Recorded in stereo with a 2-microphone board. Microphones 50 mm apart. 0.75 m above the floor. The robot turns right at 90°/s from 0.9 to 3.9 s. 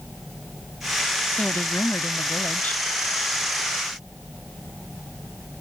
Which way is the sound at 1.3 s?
25° left.